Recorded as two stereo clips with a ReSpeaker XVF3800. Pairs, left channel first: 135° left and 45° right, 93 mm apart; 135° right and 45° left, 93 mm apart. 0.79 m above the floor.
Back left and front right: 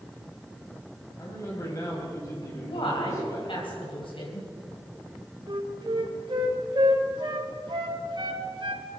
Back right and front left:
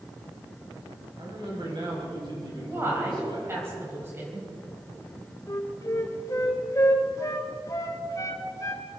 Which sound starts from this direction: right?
A flute, at 5.5 s.